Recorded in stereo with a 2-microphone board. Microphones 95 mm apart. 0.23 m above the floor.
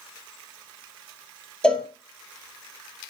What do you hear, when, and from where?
1.6 s a cowbell: 15° left (ahead or behind), 1.5 m